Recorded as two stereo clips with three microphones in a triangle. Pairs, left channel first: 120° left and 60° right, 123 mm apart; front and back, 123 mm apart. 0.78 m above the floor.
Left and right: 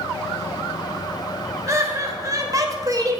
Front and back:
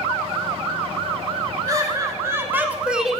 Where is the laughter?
120° right, 1.4 m; by 3.2 s 85° right, 0.8 m.